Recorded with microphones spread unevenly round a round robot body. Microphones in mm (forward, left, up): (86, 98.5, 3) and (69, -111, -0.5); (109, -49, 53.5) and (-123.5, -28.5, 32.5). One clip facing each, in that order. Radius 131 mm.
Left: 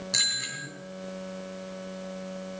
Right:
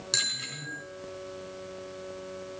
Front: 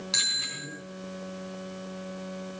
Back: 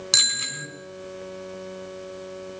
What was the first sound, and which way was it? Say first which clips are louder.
A bicycle bell: left 1 dB, back 3 dB; 160° right.